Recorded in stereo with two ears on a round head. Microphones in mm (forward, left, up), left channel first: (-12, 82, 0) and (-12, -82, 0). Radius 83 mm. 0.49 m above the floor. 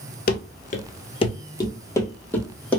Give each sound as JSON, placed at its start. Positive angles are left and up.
{"t": 0.3, "sound": "running footsteps", "side_deg": 50, "distance_m": 0.6}